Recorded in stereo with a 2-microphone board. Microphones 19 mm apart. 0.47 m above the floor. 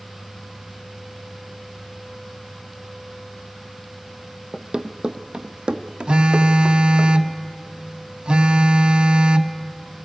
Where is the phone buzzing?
55° right (ahead or behind), 0.8 m.